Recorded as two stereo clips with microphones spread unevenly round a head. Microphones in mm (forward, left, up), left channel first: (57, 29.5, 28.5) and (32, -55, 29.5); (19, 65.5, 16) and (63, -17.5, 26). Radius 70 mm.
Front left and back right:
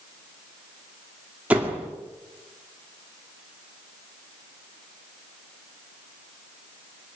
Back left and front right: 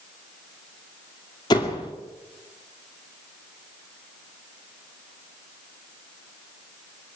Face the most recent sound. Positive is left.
turn(degrees=175)